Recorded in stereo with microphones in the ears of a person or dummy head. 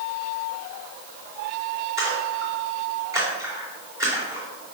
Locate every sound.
2.0 s a splash: 20° right (ahead or behind), 2.5 m